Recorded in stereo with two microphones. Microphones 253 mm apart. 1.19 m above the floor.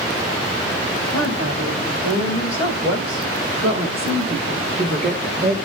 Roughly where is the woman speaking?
Right.